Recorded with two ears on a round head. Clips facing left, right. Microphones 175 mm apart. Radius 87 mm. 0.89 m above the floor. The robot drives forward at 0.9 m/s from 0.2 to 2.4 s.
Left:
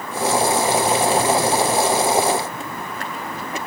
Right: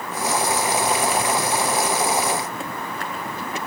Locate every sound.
Only background noise.